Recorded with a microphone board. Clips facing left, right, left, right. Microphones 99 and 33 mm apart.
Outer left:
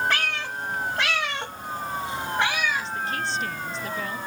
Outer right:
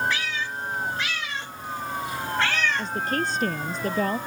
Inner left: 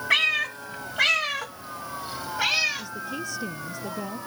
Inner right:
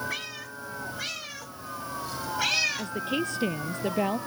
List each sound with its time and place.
0.1 s a cat meowing: 65° left (ahead or behind); by 2.9 s 5° left (ahead or behind)
2.8 s a woman speaking: 45° right (ahead or behind)